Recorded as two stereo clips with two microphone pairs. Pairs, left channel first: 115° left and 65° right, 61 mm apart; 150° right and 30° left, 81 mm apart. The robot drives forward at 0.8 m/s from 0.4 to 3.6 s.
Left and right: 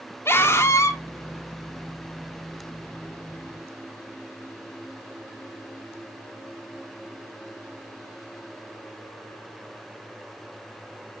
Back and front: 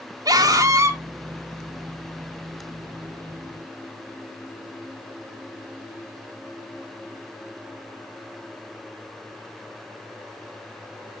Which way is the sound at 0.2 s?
65° left.